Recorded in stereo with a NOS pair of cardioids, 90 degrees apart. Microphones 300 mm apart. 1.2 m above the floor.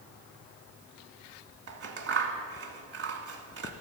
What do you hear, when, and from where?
1.7 s scissors: 45° right, 1.8 m